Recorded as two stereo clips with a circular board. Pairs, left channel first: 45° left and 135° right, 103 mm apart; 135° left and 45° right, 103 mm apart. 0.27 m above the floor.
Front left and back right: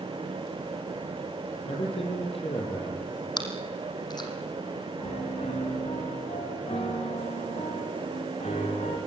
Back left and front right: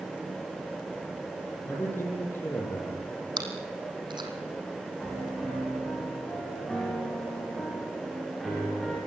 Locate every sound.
1.7 s a man speaking: 65° left, 8.5 m
3.4 s chewing: straight ahead, 3.5 m
5.0 s a piano: 45° left, 8.5 m